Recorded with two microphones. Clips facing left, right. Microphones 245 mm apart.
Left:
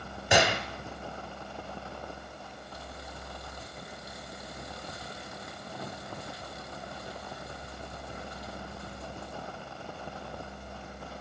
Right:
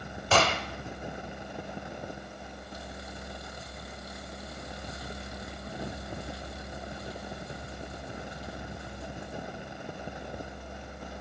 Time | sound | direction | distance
0.3 | a gunshot | 15° left (ahead or behind) | 1.4 m